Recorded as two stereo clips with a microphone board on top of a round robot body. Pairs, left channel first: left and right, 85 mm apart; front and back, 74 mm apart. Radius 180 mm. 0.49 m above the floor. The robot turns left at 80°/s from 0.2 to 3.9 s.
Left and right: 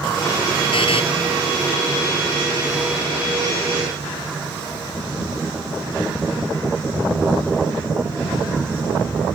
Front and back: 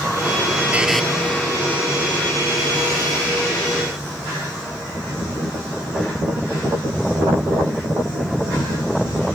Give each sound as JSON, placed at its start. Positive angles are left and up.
{"t": 0.7, "sound": "a buzzer", "azimuth_deg": 110}